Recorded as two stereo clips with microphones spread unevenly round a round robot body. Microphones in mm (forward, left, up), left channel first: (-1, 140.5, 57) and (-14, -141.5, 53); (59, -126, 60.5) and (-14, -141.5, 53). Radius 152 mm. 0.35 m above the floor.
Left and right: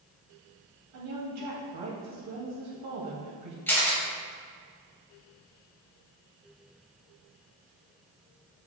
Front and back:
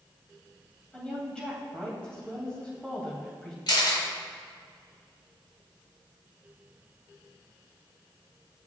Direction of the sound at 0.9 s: 70° right.